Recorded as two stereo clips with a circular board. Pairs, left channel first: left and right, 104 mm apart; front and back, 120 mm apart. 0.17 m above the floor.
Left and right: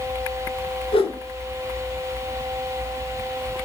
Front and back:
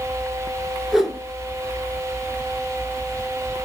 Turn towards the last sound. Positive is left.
turn(degrees=90)